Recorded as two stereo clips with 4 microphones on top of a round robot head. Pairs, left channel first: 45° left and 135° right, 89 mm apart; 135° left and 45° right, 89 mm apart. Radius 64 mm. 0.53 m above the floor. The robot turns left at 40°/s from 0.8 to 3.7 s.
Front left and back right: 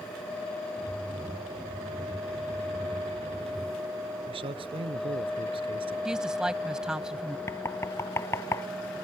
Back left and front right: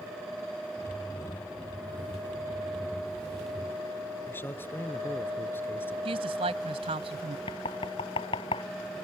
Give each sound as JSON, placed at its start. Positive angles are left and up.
{"t": 4.3, "sound": "a man speaking", "azimuth_deg": -160}
{"t": 6.0, "sound": "a woman speaking", "azimuth_deg": -50}
{"t": 7.5, "sound": "knocking", "azimuth_deg": 105}